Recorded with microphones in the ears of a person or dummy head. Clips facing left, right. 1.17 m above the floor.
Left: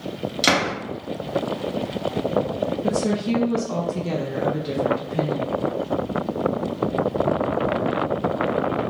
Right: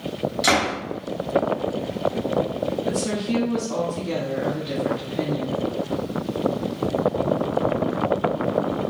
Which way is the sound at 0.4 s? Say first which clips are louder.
Left 1 dB; 40° left (ahead or behind).